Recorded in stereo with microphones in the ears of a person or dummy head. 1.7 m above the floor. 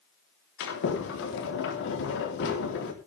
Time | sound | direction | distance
0.6 | a sliding door | 65° left (ahead or behind) | 3.5 m